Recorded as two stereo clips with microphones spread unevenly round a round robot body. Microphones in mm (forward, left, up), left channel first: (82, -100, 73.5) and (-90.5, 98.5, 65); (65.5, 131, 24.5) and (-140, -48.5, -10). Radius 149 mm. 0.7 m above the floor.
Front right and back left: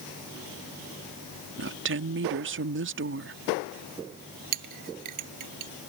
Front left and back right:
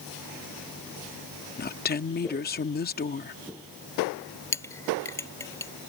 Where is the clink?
120° left.